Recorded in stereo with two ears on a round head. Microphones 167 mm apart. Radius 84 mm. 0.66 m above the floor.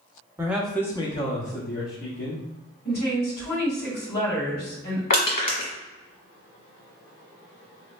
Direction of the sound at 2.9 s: 55° left (ahead or behind).